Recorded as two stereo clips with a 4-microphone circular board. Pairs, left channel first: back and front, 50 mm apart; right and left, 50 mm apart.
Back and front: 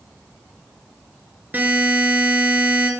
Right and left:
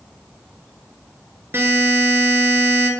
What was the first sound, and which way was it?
A buzzer, 55° left.